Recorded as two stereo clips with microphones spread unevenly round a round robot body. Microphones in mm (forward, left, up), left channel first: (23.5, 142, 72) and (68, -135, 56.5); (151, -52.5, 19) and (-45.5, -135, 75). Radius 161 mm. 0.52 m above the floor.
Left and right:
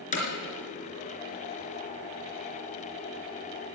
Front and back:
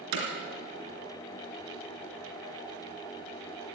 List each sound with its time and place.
0.1 s hammering: 165° left, 3.5 m